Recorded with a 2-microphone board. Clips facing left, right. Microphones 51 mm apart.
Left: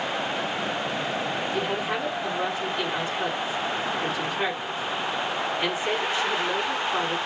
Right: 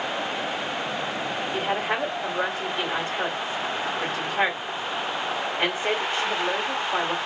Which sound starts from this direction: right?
A woman speaking, at 1.5 s.